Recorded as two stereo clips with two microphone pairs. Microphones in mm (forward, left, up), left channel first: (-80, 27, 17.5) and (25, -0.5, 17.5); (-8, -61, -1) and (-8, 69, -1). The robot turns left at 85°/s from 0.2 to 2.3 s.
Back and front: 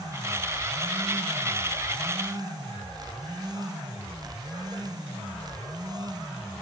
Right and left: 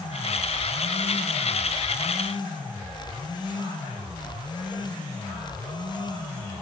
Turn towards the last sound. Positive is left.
No sound to turn to.